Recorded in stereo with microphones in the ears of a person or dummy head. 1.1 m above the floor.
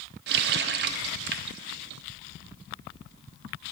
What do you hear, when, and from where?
0.3 s a running tap: 55° right (ahead or behind), 0.5 m